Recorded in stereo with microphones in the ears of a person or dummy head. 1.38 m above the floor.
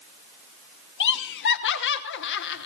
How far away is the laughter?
About 1.0 m.